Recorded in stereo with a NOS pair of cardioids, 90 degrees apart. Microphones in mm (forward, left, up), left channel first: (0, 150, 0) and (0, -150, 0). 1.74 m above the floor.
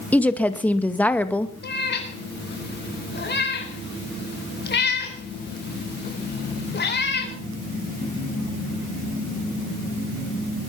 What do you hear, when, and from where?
0.1 s a woman speaking: 5° left, 2 m
1.6 s a cat meowing: 35° left, 4.5 m